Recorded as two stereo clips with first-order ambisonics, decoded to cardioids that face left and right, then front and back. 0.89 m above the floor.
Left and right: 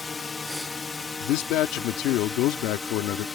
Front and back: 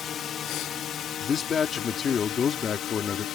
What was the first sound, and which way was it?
A drone, 30° left.